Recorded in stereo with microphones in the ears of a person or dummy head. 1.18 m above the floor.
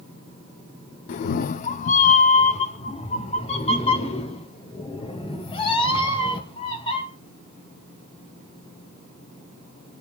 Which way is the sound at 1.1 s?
50° left (ahead or behind).